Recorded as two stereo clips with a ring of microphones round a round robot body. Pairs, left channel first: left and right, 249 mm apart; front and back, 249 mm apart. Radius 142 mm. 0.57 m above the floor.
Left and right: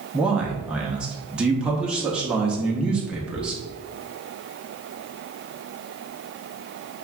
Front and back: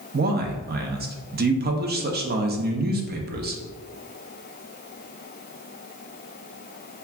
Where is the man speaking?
175° right, 0.7 m.